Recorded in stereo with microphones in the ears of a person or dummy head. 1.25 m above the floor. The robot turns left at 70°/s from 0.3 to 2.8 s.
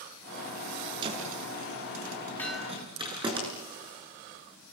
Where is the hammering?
10° left (ahead or behind), 5 m; by 2.8 s 20° right (ahead or behind), 5 m.